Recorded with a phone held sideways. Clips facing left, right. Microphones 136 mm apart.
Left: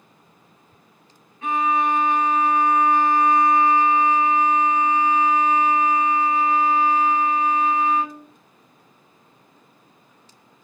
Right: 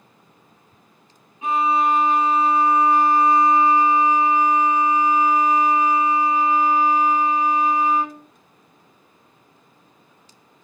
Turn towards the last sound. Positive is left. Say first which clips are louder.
# right 2 dB
turn(degrees=-15)  # may be behind; listen again after turning